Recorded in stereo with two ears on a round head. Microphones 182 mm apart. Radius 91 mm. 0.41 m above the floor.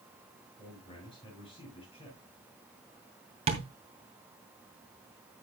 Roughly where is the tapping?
Right.